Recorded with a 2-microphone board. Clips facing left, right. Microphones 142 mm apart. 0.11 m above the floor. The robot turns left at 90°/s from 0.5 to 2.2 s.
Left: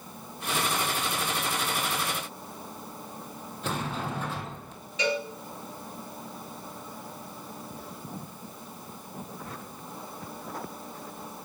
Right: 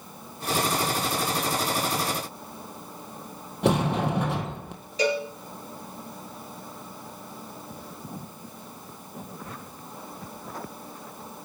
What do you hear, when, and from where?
3.6 s a sliding door: 70° right (ahead or behind), 1.2 m
5.0 s a cowbell: 35° right (ahead or behind), 2.5 m